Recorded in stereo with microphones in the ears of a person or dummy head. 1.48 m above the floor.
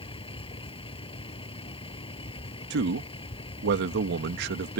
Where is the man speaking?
60° right (ahead or behind).